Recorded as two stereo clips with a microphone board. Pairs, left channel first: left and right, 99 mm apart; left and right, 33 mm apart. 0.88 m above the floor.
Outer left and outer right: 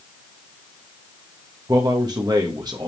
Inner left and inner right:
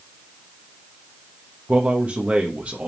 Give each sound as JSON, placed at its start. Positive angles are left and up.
{"t": 1.7, "sound": "a man speaking", "side_deg": -40, "distance_m": 1.2}